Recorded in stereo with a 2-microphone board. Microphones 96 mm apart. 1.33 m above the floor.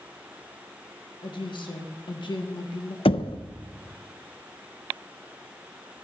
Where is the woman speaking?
55° left (ahead or behind), 1.9 m.